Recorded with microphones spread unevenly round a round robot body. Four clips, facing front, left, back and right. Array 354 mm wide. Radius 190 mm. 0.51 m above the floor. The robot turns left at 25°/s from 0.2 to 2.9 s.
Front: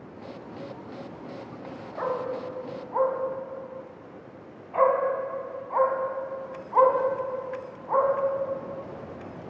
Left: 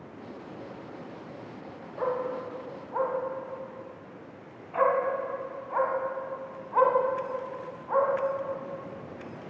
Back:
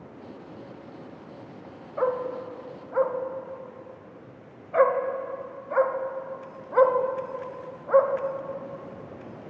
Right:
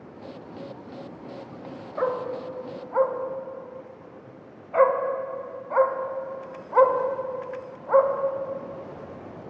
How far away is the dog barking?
About 0.7 m.